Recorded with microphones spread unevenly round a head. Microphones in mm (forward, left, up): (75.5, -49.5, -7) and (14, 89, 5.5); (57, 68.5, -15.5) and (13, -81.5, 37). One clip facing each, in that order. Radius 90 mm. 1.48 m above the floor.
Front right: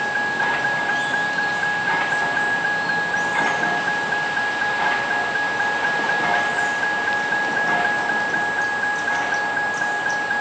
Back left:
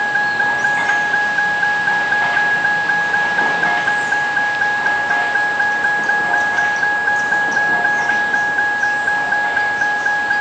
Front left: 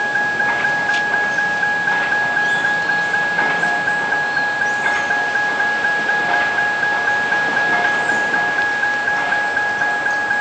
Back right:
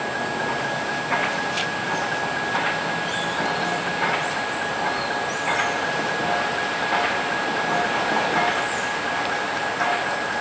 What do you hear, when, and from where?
0.0 s a vehicle: 95° left